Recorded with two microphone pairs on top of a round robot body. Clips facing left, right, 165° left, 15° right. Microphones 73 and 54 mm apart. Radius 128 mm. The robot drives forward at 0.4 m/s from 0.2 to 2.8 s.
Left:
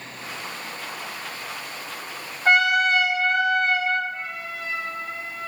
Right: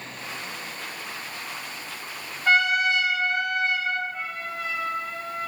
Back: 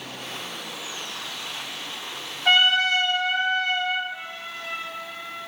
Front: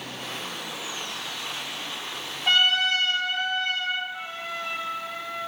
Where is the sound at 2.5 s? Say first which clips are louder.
Left 3 dB, back 3 dB; 125° left, 2.5 m.